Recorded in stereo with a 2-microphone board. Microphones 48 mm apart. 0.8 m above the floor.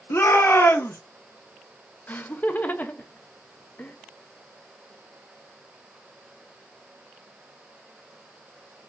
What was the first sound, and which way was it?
A shout, 65° left (ahead or behind).